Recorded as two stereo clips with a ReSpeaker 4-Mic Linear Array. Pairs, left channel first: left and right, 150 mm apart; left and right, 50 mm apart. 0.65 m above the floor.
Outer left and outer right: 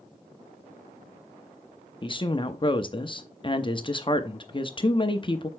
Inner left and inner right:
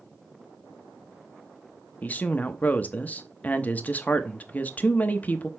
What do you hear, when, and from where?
2.0 s a woman speaking: 35° left (ahead or behind), 0.7 m